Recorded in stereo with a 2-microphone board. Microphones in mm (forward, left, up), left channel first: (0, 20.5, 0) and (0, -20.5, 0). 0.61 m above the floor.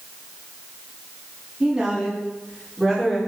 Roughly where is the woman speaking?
Centre.